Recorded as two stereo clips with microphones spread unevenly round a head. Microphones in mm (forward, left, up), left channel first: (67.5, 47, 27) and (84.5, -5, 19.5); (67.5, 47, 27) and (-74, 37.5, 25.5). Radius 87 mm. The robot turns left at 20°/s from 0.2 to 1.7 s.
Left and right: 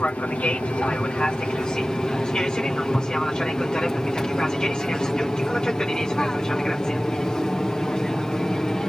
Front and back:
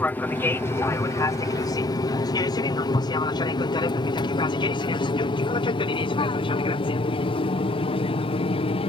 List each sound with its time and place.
0.0 s an aircraft: 65° left; by 8.9 s 30° left